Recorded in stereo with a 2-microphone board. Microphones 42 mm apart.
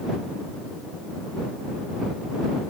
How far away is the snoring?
I don't hear snoring.